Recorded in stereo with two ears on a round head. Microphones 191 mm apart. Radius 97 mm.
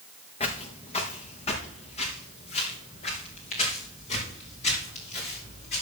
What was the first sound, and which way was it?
Footsteps, 30° left (ahead or behind).